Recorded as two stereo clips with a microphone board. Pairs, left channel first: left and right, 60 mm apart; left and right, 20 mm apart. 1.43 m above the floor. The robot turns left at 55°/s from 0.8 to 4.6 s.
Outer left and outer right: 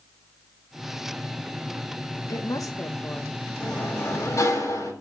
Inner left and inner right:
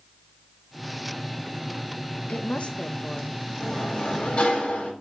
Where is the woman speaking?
85° left, 1.4 m; by 3.3 s 30° left, 1.4 m.